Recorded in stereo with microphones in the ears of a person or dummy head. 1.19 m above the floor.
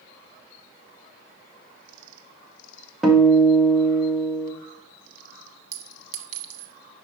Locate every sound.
3.0 s a guitar: 5° right (ahead or behind), 1.0 m
5.7 s a clink: 70° right (ahead or behind), 1.1 m